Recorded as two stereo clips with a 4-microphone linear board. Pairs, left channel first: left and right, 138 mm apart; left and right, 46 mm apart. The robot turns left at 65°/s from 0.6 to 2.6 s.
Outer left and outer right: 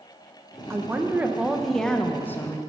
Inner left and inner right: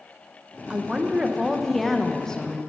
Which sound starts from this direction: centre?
A woman speaking, at 0.7 s.